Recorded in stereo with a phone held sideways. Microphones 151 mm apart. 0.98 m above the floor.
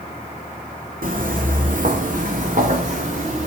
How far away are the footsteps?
About 2.5 m.